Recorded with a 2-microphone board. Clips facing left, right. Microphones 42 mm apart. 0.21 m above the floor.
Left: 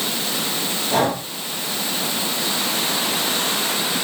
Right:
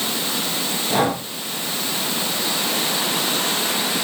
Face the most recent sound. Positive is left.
turn(degrees=-5)  # may be behind; listen again after turning